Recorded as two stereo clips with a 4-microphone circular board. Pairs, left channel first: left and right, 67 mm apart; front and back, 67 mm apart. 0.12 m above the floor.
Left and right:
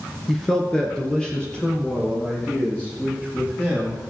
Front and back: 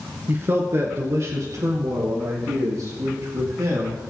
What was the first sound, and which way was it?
A man speaking, 175° left.